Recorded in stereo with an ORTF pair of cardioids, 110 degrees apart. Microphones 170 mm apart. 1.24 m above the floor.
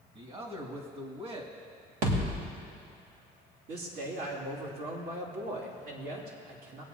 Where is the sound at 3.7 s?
60° right, 3 m.